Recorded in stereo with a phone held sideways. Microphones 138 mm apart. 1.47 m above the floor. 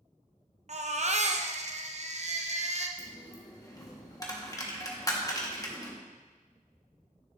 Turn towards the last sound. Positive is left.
turn(degrees=25)  # may be behind; listen again after turning